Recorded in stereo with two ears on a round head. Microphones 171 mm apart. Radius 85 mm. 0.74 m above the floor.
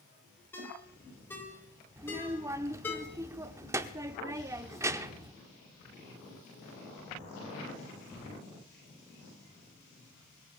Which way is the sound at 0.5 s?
10° left (ahead or behind).